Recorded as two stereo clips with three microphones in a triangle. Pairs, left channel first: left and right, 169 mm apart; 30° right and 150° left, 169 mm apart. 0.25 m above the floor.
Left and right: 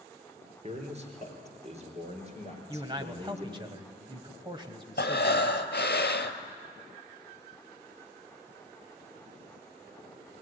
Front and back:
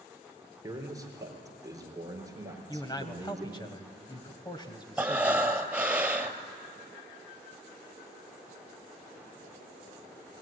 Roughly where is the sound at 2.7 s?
Ahead right.